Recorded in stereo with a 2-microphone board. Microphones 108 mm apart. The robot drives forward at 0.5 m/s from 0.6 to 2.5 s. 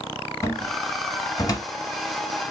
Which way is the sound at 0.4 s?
25° left (ahead or behind).